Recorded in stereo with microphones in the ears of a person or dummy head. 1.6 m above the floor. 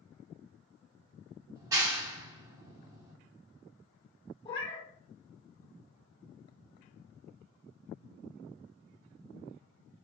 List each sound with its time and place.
1.6 s a clap: 15° right (ahead or behind), 0.6 m
4.5 s a cat meowing: 30° left (ahead or behind), 1.1 m